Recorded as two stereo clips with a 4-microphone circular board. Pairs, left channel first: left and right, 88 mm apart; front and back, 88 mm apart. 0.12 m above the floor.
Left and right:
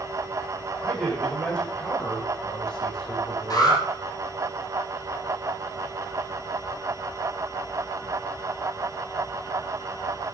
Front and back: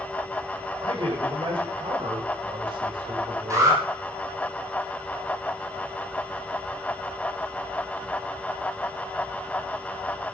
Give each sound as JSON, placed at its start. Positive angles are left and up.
{"t": 0.8, "sound": "a man speaking", "azimuth_deg": 170, "distance_m": 8.0}
{"t": 3.5, "sound": "an alarm", "azimuth_deg": 130, "distance_m": 6.5}